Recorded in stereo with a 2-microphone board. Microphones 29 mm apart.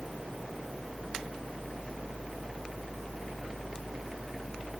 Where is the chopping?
I don't hear chopping.